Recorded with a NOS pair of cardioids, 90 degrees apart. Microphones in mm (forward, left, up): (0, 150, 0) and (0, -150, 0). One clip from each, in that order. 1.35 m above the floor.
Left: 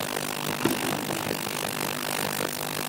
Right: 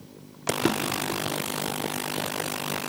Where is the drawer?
15° right, 2.5 m.